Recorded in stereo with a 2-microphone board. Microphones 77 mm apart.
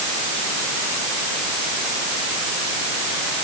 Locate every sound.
Only background noise.